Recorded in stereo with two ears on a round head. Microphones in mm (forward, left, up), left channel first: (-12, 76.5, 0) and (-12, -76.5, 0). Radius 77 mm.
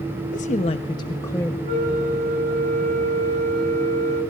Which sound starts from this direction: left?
A woman speaking, at 0.3 s.